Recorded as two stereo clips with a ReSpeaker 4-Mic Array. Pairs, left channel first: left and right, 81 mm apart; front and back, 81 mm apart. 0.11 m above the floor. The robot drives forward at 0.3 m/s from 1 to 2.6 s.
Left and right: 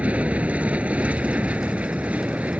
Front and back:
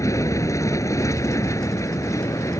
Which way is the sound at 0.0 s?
25° right.